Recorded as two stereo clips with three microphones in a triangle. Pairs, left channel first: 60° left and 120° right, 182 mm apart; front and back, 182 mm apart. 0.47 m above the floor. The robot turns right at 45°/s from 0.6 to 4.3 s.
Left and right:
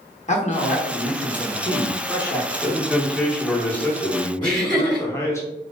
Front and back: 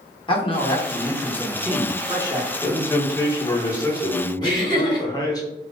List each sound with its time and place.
0.3 s a man speaking: 45° left, 0.9 m; by 2.5 s 130° left, 0.9 m
2.6 s a man speaking: 60° right, 0.7 m; by 5.4 s 15° left, 0.7 m
4.4 s laughter: 60° right, 2.0 m